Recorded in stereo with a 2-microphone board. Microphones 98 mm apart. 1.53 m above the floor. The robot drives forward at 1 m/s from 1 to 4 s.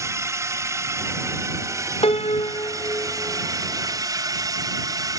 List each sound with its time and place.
0.0 s a drone: 30° right (ahead or behind); by 5.2 s 40° right (ahead or behind)
2.0 s a piano: 80° left; by 3.5 s 25° left (ahead or behind)